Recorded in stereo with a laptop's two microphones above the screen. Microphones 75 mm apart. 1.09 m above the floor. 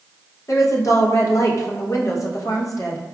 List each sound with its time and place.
0.5 s a woman speaking: 45° left (ahead or behind), 0.7 m